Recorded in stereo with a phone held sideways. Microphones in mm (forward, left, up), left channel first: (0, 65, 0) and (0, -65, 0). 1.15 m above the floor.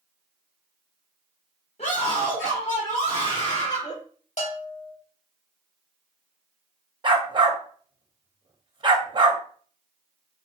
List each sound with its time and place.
1.8 s a scream: 55° left (ahead or behind), 1.3 m
4.4 s a bell: 60° left (ahead or behind), 1.6 m
7.0 s a dog barking: 40° right (ahead or behind), 0.6 m